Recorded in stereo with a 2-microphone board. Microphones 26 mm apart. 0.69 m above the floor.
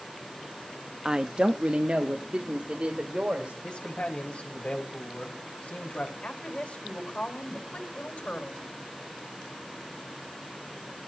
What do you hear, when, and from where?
1.1 s a woman speaking: 20° right (ahead or behind), 0.6 m; by 3.5 s 55° right (ahead or behind), 2.5 m
3.6 s a man speaking: 55° left (ahead or behind), 4 m
6.2 s a woman speaking: 60° left (ahead or behind), 3.5 m